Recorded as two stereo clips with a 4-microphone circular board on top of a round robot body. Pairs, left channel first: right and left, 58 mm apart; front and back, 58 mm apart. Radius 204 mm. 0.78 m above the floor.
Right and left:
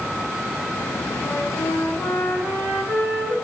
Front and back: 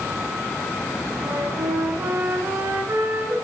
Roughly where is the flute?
Behind.